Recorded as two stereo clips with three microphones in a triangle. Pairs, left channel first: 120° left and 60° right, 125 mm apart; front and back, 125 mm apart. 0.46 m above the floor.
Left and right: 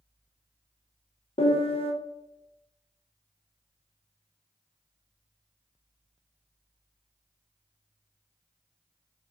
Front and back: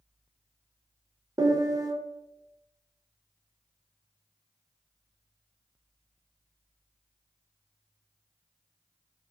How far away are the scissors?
I don't hear scissors.